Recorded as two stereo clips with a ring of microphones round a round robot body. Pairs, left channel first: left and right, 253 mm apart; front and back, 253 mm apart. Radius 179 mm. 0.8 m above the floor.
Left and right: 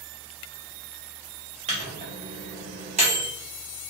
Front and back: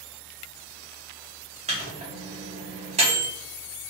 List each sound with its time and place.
1.7 s a microwave: 135° right, 0.5 m